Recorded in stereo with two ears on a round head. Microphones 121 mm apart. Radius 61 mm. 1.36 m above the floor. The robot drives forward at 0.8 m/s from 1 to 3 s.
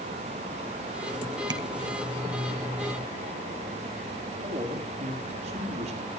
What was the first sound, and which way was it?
Tapping, 35° right (ahead or behind).